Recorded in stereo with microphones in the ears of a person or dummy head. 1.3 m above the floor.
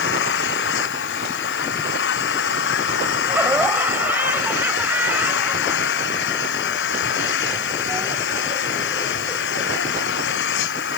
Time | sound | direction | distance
0.0 | an engine running | 80° left | ?
3.3 | laughter | centre (ahead or behind) | ?